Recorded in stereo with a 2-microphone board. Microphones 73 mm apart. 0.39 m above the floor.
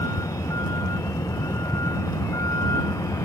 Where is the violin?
No violin in this recording.